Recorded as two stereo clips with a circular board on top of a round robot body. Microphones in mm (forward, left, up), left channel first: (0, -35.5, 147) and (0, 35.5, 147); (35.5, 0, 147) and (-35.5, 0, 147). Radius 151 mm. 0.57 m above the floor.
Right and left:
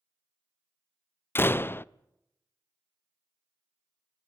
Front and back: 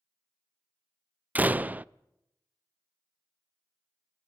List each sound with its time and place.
1.4 s a door slam: 125° right, 0.5 m